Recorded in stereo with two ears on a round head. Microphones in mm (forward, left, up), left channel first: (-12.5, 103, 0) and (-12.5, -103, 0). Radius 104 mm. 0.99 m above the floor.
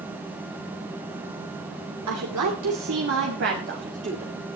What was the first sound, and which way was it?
A woman speaking, 80° right.